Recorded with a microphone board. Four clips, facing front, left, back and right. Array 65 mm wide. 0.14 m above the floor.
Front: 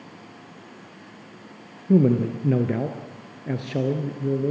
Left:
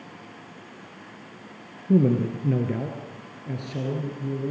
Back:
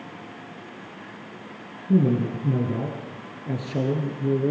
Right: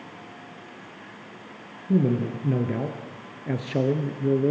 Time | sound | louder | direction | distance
1.9 | a man speaking | left 2 dB, front 2 dB | 15° left | 2.5 m